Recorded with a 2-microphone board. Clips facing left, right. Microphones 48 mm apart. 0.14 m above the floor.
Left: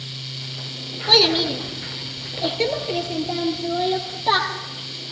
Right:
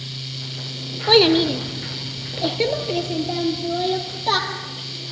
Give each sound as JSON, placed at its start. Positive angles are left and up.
{"t": 1.1, "sound": "a child speaking", "side_deg": -20, "distance_m": 0.7}